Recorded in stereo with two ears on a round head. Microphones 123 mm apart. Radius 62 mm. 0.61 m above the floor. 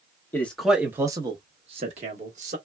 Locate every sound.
0.3 s a man speaking: 15° left (ahead or behind), 0.6 m; by 2.6 s 55° right (ahead or behind), 1.2 m